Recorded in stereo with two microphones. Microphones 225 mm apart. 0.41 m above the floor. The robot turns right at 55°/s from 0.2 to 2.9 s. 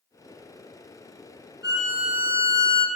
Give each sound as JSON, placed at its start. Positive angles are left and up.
{"t": 1.6, "sound": "a violin", "azimuth_deg": 55, "distance_m": 0.8}